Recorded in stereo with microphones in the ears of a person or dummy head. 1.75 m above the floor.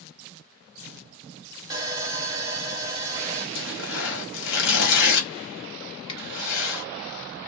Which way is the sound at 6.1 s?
35° left (ahead or behind).